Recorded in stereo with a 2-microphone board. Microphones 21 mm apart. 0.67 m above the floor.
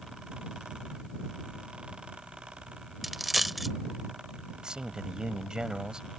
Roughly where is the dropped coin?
Centre.